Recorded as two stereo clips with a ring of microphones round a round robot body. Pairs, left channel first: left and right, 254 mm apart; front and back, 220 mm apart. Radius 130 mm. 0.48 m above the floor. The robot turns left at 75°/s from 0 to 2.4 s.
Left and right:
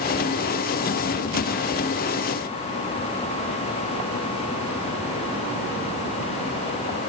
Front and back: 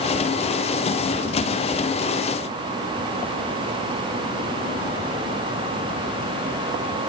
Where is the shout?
I don't hear a shout.